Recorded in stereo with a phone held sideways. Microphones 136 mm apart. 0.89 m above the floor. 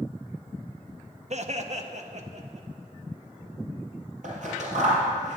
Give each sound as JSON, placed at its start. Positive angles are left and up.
{"t": 1.3, "sound": "laughter", "side_deg": -55, "distance_m": 0.9}
{"t": 4.2, "sound": "scissors", "side_deg": -65, "distance_m": 4.0}